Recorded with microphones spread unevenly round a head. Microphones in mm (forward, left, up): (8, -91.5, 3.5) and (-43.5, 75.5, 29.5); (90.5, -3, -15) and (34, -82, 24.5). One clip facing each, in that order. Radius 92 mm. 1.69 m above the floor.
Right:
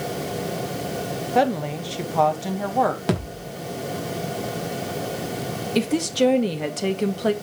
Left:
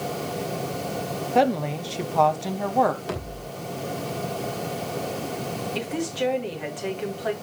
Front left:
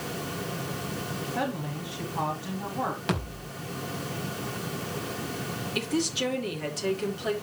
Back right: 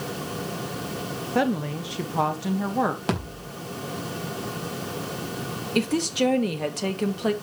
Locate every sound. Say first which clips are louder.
1.4 s a woman speaking: even, back right 9 dB; 160° right, 1.6 m
3.1 s a thud: right 6 dB, back right 3 dB; 90° right, 4.5 m
5.8 s a woman speaking: right 9 dB, back right 6 dB; 115° right, 2 m